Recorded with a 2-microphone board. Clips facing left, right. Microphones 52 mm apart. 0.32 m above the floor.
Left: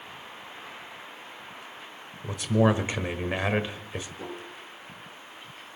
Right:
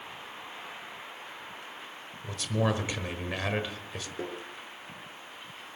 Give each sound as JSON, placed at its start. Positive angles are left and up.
{"t": 2.2, "sound": "a man speaking", "side_deg": 20, "distance_m": 1.3}
{"t": 4.2, "sound": "tapping", "side_deg": -75, "distance_m": 4.5}